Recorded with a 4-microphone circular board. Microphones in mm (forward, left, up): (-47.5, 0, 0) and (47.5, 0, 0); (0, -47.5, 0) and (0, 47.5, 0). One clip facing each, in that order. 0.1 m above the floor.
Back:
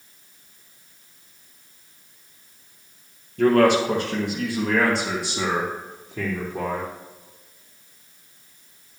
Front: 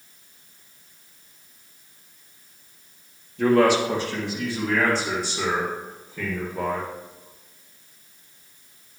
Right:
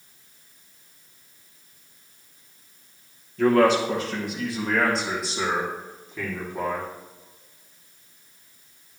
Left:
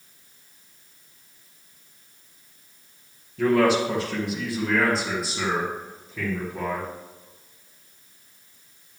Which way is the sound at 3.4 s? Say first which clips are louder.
Back 1 dB, right 1 dB; 175° left.